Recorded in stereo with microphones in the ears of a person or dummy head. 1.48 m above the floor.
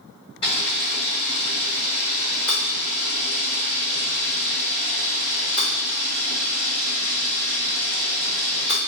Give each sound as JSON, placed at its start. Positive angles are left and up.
{"t": 0.4, "sound": "a camera shutter", "side_deg": 20, "distance_m": 1.7}